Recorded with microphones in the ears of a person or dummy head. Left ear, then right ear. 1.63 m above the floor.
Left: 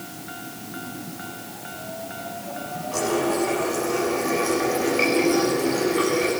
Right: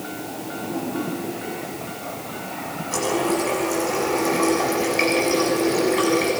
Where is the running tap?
20° right (ahead or behind), 9 m.